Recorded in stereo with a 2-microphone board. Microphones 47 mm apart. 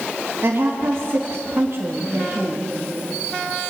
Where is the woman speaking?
65° right (ahead or behind), 2.5 m.